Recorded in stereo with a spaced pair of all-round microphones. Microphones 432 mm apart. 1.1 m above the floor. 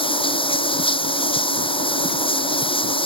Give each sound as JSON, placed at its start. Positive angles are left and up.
{"t": 0.0, "sound": "running water", "side_deg": 10}